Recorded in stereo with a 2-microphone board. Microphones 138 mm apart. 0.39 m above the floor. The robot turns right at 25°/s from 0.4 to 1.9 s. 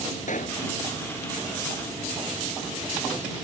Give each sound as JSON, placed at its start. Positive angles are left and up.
{"t": 0.3, "sound": "a pop", "side_deg": 65}